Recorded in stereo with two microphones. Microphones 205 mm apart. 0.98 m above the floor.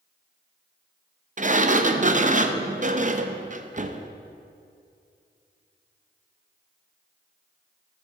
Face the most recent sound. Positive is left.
turn(degrees=-40)  # may be behind; listen again after turning